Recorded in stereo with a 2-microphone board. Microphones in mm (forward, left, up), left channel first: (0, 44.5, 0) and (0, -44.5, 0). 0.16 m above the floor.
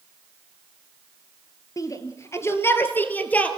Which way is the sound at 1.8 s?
40° left (ahead or behind).